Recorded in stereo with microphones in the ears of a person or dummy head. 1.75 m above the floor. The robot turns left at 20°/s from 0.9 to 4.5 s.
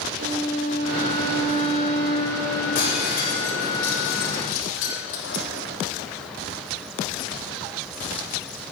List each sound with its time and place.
0.2 s a violin: 70° right (ahead or behind), 3 m; by 2.4 s 55° right (ahead or behind), 3 m
2.8 s breaking glass: 50° left (ahead or behind), 3.5 m; by 5.5 s 70° left (ahead or behind), 3.5 m